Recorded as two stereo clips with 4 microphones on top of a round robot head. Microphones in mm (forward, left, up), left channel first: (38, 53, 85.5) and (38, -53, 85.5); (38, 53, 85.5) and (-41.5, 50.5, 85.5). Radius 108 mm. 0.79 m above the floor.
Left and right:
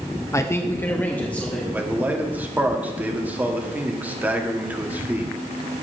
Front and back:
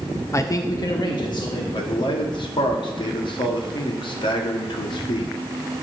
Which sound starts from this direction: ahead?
A man speaking, at 1.7 s.